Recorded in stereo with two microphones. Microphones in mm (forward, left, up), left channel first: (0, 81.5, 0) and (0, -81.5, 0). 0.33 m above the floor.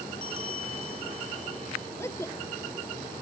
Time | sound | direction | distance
0.2 | a bell | 45° right (ahead or behind) | ?
2.0 | a woman speaking | 15° left (ahead or behind) | ?